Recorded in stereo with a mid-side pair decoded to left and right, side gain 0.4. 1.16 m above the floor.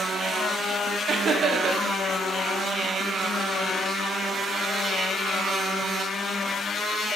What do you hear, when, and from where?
1.1 s laughter: 60° right, 0.6 m